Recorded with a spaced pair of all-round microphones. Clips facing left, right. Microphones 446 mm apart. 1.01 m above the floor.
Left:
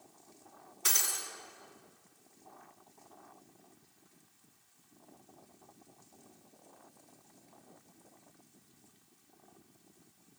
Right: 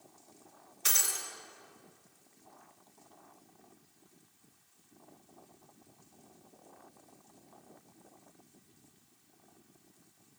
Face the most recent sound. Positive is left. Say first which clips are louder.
# even
turn(degrees=70)  # may be behind; listen again after turning